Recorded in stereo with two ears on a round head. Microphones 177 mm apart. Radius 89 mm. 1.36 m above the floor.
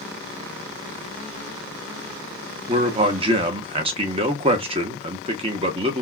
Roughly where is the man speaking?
Right.